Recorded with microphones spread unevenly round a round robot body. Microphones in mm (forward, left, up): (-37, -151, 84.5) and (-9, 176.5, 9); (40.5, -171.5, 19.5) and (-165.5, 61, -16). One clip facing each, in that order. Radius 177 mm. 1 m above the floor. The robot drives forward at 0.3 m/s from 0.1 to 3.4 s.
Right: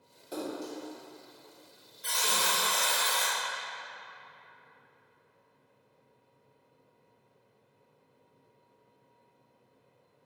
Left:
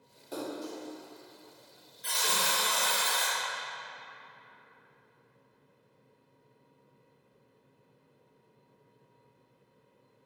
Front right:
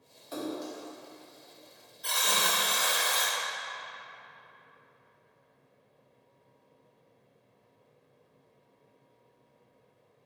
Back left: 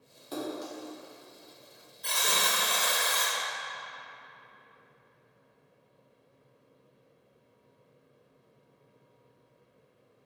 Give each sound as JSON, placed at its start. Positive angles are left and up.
{"t": 0.3, "sound": "a splash", "azimuth_deg": 180, "distance_m": 1.0}
{"t": 2.0, "sound": "a buzzer", "azimuth_deg": -170, "distance_m": 1.3}